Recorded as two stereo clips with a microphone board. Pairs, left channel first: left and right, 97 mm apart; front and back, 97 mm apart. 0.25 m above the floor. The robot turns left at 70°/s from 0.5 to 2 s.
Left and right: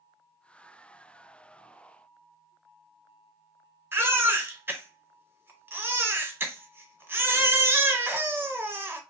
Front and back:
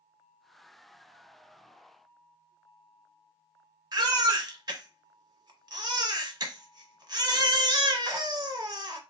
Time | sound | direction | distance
3.9 | a baby crying | 150° right | 0.7 m